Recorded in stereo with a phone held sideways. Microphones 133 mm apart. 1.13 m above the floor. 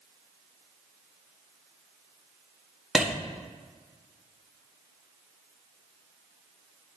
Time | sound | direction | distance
3.0 | a clap | 5° right (ahead or behind) | 1.6 m